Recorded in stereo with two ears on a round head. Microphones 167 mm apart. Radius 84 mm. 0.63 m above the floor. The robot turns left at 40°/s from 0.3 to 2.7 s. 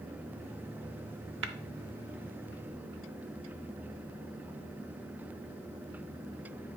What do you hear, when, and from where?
1.4 s tapping: 70° right (ahead or behind), 0.8 m